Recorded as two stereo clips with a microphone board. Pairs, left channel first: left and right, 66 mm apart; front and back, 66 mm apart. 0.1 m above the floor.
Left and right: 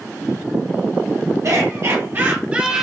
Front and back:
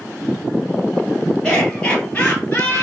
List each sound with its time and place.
1.4 s laughter: 75° right, 2.5 m; by 2.9 s 15° right, 1.7 m